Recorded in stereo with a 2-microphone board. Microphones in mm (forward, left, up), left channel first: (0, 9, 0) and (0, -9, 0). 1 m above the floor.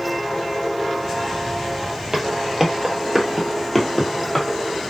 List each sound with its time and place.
2.1 s footsteps: 35° right (ahead or behind), 1.1 m; by 4.5 s 30° left (ahead or behind), 1.2 m